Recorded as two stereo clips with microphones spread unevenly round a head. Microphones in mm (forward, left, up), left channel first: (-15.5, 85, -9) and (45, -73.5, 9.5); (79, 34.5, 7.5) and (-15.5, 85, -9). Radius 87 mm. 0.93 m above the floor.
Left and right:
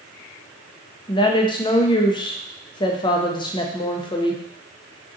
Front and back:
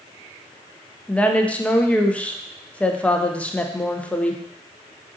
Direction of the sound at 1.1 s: 55° left.